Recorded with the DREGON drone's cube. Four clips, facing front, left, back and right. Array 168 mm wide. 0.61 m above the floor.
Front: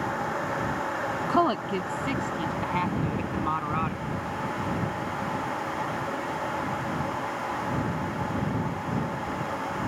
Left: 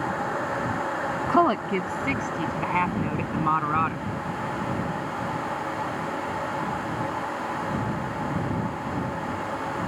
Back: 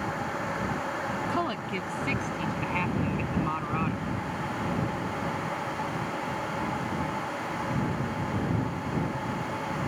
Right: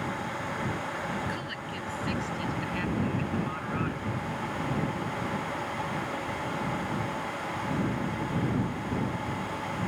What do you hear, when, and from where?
1.3 s a woman speaking: 65° left; by 4.0 s 80° left